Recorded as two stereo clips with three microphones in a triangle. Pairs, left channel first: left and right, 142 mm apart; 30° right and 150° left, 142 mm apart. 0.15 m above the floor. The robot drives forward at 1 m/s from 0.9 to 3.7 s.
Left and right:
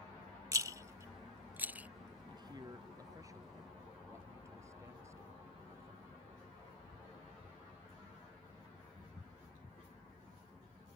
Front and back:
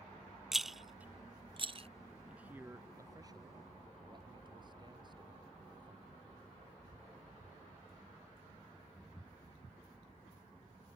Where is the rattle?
125° right; by 1.9 s 170° right.